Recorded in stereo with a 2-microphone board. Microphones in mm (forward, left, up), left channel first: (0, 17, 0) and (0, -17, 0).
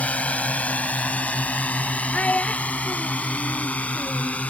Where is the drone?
45° left (ahead or behind).